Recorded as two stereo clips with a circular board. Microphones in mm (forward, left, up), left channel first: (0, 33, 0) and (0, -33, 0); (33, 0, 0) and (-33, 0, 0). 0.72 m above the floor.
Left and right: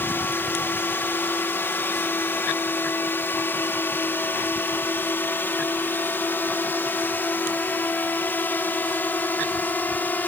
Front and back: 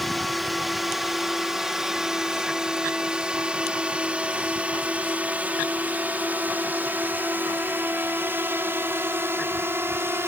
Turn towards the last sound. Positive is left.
turn(degrees=140)